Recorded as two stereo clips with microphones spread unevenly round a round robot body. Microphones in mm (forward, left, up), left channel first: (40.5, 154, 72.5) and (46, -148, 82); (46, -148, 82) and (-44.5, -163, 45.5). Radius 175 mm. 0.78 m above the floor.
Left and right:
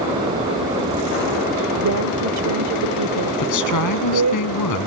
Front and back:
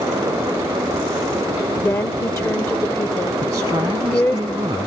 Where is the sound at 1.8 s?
55° right.